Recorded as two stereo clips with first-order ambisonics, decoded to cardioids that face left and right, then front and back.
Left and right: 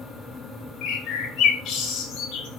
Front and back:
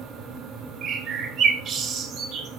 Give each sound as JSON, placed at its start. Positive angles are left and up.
{"t": 0.8, "sound": "a bird", "azimuth_deg": 125, "distance_m": 1.8}